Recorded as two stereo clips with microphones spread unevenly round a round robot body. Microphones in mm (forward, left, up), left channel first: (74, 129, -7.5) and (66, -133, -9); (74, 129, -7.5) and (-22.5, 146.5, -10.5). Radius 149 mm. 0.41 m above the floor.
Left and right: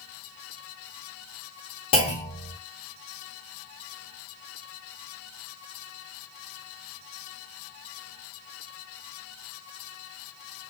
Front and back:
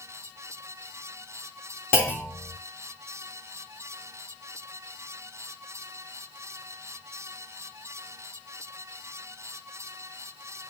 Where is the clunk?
35° left, 0.9 m.